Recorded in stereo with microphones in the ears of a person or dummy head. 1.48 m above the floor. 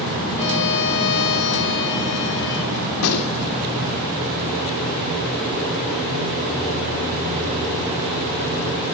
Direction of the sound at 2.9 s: 80° left.